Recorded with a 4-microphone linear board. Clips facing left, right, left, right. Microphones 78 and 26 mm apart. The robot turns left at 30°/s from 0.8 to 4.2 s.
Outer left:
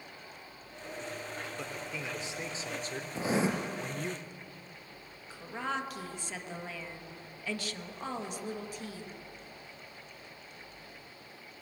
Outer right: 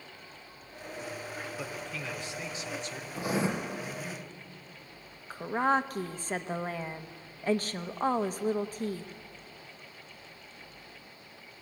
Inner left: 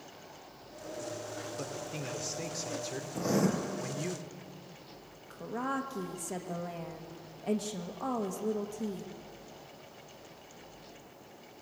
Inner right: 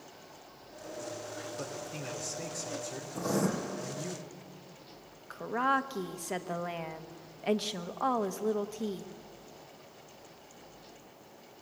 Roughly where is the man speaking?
Behind.